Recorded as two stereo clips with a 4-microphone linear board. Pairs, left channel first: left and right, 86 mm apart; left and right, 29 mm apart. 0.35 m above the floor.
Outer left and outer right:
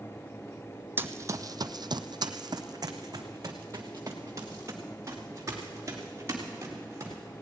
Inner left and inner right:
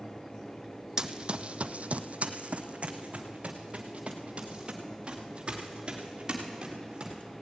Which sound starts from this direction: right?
Running footsteps, at 1.0 s.